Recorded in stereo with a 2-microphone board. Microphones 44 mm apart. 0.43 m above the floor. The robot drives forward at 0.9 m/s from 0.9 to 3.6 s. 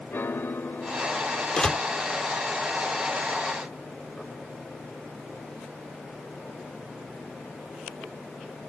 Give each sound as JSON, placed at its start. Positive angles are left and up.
{"t": 0.1, "sound": "a piano", "side_deg": 60}
{"t": 1.6, "sound": "a door slam", "side_deg": 20}